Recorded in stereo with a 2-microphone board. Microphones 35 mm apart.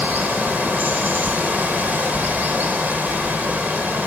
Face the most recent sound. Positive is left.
turn(degrees=-65)  # may be behind; listen again after turning